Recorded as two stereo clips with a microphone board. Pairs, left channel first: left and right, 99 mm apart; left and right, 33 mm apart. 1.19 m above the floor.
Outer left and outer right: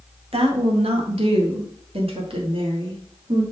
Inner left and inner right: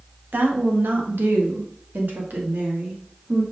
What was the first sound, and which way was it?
A woman speaking, 80° right.